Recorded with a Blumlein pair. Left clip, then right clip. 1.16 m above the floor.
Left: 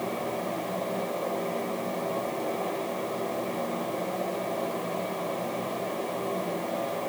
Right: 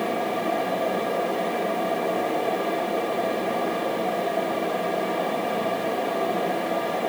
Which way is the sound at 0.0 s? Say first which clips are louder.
Right 6 dB; 35° right.